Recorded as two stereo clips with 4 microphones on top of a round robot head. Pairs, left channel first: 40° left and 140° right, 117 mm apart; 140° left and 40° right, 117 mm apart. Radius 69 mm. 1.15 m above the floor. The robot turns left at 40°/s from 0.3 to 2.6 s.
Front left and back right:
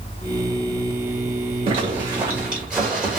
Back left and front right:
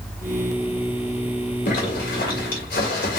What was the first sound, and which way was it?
A zipper, 175° left.